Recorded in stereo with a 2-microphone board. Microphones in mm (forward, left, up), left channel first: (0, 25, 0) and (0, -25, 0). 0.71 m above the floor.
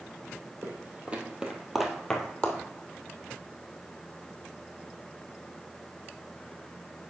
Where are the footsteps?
35° right (ahead or behind), 1.5 m; by 2.6 s 25° left (ahead or behind), 1.3 m.